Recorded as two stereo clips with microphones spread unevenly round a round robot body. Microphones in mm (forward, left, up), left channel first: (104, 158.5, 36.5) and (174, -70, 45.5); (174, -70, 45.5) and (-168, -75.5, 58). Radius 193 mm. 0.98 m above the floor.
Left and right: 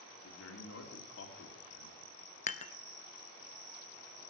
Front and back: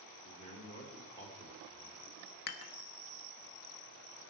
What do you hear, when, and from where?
0.2 s a man speaking: 80° left, 2 m
2.5 s dishes clattering: 40° left, 0.7 m